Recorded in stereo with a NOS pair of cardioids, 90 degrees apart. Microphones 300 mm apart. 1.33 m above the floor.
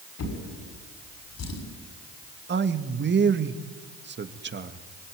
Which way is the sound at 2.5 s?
35° right.